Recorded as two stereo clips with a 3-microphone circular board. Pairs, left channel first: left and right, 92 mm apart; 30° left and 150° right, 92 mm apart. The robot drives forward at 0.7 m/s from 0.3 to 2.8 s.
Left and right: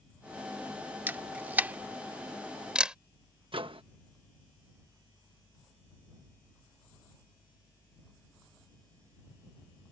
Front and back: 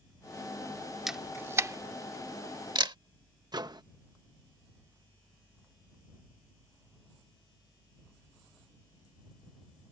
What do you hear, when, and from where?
1.1 s a camera shutter: 70° right; by 3.0 s 170° right
3.5 s a microwave: 110° right